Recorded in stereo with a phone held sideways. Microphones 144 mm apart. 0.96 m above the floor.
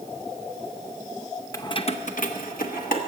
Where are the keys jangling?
20° left (ahead or behind), 0.6 m; by 3.0 s 80° left, 1.1 m.